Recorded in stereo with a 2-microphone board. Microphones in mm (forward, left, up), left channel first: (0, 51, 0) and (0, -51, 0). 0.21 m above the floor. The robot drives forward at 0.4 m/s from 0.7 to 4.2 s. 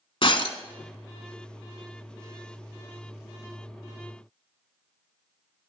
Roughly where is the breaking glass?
Left.